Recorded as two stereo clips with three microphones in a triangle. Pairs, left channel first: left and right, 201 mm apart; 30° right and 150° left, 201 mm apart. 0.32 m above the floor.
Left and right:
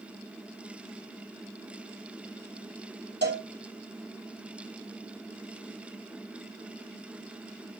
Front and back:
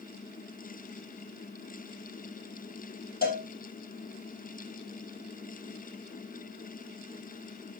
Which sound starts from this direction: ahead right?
A cowbell, at 3.2 s.